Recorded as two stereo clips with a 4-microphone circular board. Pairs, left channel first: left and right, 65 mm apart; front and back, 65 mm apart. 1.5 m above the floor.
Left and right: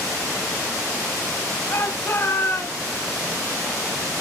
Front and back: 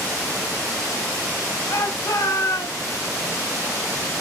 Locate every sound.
1.7 s a shout: 40° left, 8 m